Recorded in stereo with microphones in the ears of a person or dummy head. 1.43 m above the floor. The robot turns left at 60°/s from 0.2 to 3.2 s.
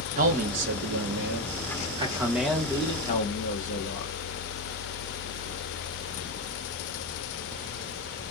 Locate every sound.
0.2 s a man speaking: 45° right, 1.7 m; by 4.1 s 135° left, 1.7 m